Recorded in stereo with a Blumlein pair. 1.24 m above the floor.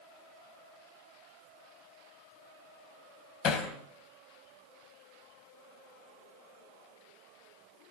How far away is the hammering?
About 3.5 m.